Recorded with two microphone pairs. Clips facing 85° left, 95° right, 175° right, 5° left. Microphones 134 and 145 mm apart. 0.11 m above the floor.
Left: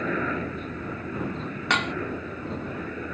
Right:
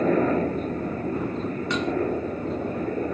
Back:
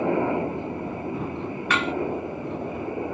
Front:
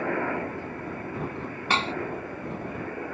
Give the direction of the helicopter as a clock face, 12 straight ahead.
4 o'clock.